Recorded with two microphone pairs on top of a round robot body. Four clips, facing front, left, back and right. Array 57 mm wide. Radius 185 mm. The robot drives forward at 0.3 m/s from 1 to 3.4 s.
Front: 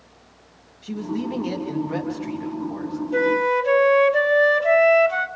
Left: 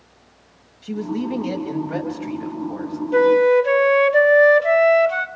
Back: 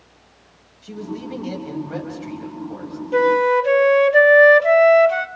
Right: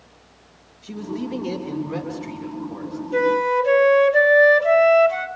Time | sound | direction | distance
0.8 | a man speaking | 105° left | 5 m
3.1 | a flute | 150° left | 1.9 m